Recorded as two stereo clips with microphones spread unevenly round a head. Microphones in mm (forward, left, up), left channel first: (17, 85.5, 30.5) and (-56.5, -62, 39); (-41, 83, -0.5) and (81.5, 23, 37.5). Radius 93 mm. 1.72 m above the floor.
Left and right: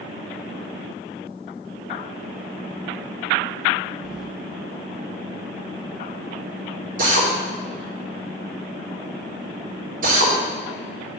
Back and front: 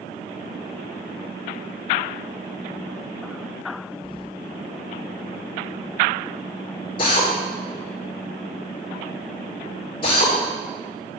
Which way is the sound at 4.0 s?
115° left.